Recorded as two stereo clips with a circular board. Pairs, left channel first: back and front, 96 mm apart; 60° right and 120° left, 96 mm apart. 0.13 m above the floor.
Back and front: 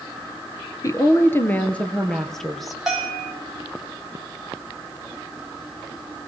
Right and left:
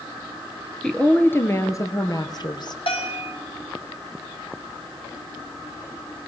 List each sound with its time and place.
0.8 s a woman speaking: 140° right, 2.5 m; by 2.8 s 90° right, 3.5 m
2.9 s a bell: 85° right, 7 m